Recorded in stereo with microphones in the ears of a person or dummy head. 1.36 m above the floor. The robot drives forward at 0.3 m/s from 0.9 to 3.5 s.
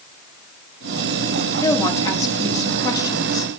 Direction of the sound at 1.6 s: 20° left (ahead or behind).